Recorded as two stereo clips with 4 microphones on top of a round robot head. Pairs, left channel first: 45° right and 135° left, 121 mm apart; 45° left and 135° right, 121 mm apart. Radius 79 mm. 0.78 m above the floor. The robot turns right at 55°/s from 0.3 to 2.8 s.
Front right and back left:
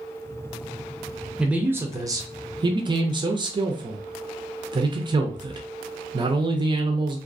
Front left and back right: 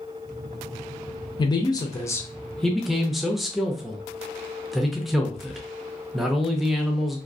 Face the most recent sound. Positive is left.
turn(degrees=135)